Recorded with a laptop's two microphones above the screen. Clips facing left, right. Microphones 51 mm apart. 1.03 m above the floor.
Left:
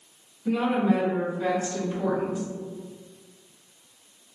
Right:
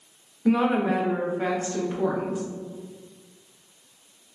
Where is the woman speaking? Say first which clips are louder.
Right 2 dB; 70° right (ahead or behind), 0.7 m; by 2.4 s 25° right (ahead or behind), 1.4 m.